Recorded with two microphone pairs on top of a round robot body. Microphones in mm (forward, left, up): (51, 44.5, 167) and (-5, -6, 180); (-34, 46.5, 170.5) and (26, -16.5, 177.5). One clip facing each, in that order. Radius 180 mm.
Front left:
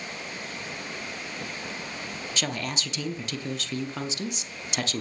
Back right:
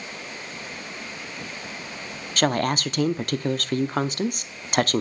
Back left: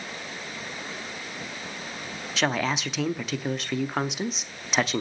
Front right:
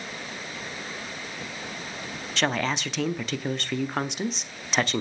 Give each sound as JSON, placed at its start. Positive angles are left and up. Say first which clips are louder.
{"t": 2.4, "sound": "a woman speaking", "louder": "back right 11 dB, even", "azimuth_deg": -150, "distance_m": 1.0}